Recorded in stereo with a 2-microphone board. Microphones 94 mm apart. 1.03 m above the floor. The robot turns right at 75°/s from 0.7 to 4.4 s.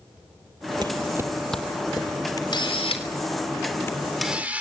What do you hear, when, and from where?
0.8 s footsteps: 45° right (ahead or behind), 1.5 m; by 2.1 s 50° left (ahead or behind), 3 m
2.4 s a camera shutter: 45° left (ahead or behind), 3.5 m; by 4.6 s 15° right (ahead or behind), 3.5 m